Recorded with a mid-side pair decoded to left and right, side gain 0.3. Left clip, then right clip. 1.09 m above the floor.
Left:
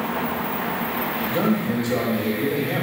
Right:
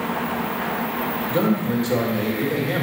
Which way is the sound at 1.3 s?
55° right.